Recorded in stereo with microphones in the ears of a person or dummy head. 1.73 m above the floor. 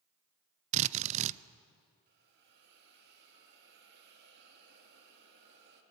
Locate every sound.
0.7 s a drill: 40° right (ahead or behind), 0.6 m
2.1 s a hiss: 60° right (ahead or behind), 3.5 m